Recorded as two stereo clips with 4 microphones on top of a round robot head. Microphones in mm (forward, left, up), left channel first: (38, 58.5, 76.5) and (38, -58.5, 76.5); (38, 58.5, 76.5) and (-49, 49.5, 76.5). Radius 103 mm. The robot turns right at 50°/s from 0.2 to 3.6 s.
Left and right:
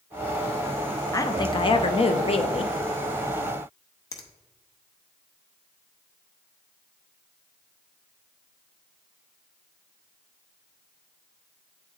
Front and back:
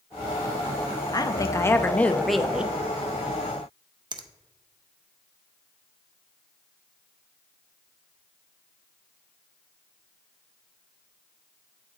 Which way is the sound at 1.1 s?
35° left.